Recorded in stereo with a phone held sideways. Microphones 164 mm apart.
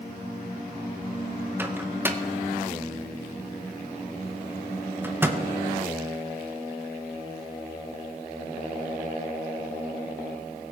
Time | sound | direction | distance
1.6 | a microwave | 10° right (ahead or behind) | 0.7 m